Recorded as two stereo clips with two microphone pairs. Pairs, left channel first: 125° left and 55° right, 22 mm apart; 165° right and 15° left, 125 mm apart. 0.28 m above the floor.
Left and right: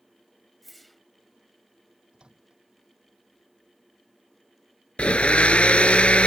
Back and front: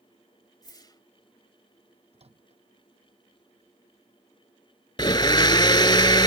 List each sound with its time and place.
0.6 s a whoosh: 160° right
2.1 s a microwave: 15° right
5.0 s a blender: 145° left